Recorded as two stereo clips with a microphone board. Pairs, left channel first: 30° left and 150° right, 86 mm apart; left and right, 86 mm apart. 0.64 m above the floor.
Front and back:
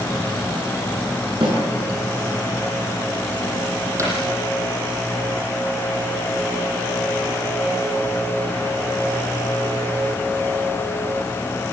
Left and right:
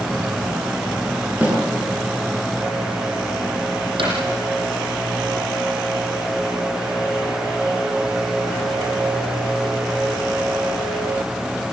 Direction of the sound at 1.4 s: 160° right.